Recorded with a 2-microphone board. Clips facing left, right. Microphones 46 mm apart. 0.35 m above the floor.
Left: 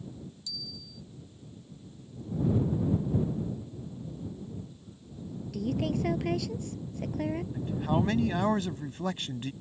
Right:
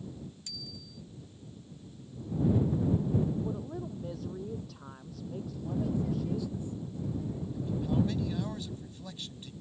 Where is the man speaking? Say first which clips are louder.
Even; 60° left (ahead or behind).